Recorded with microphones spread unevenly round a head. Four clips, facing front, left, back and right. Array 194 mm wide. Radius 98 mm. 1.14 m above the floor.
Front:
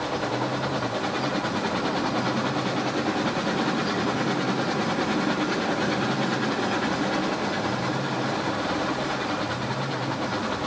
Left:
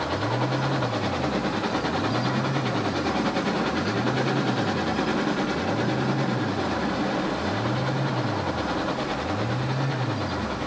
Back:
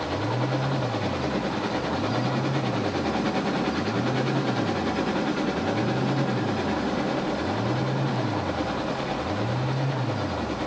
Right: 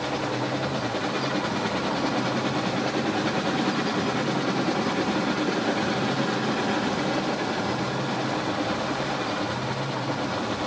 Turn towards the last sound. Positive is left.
No sound to turn to.